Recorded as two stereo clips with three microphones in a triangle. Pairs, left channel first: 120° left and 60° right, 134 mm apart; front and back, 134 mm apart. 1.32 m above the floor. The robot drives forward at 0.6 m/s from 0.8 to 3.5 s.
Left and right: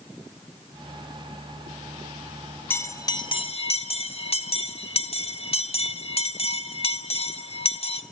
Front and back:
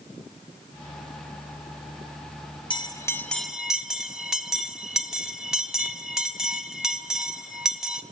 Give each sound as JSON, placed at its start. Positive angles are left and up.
{"t": 2.7, "sound": "a bell", "azimuth_deg": 45, "distance_m": 0.8}